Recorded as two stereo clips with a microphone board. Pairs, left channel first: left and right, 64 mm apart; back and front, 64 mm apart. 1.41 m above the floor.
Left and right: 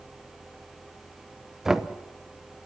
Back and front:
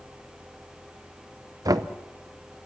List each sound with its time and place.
1.6 s knocking: 5° right, 0.9 m